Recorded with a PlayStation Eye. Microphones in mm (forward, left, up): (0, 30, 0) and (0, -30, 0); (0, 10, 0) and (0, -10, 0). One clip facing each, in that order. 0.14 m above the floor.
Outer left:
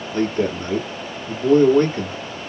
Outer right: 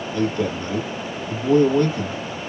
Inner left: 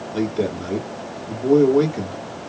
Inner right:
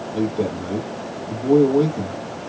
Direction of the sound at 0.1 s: 45° left (ahead or behind).